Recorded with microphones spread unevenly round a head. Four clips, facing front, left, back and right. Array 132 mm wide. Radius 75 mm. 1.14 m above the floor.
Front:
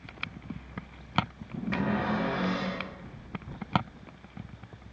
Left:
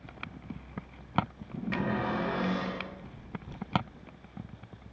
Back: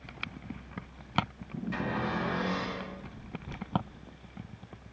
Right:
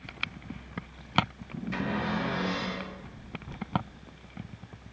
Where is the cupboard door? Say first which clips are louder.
Even, front 4 dB; 20° left, 1.1 m.